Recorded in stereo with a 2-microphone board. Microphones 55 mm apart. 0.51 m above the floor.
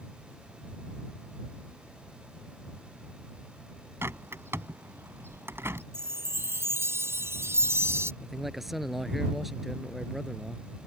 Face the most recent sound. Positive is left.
turn(degrees=-5)  # may be behind; listen again after turning